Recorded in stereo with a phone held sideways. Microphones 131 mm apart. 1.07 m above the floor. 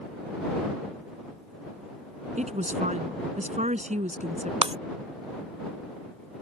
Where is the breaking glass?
50° right (ahead or behind).